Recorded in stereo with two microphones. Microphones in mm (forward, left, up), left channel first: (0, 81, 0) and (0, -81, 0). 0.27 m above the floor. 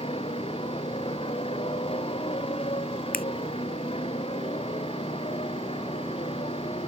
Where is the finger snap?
70° left (ahead or behind).